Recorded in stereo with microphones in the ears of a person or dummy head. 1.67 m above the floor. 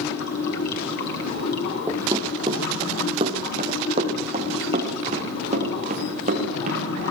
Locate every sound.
0.0 s running water: 60° left (ahead or behind), 5 m
1.9 s running footsteps: 20° right (ahead or behind), 3 m; by 6.8 s 45° right (ahead or behind), 8.5 m